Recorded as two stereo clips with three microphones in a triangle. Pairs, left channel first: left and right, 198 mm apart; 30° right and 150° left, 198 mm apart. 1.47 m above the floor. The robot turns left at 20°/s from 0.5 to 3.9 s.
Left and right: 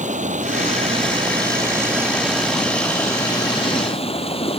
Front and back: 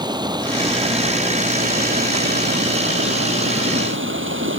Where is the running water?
140° right; by 4.6 s 150° left.